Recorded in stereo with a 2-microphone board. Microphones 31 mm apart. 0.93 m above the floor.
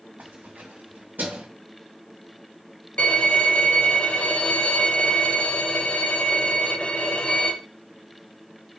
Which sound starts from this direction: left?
A violin, at 3.0 s.